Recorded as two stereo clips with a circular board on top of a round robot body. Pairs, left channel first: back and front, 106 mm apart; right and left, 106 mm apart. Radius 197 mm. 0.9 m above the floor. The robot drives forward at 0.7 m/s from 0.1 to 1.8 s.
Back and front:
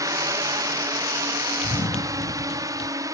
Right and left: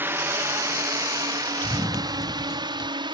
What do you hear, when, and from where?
0.0 s a drone: 30° left; by 3.1 s 50° left
1.6 s running footsteps: 160° right; by 2.9 s 150° right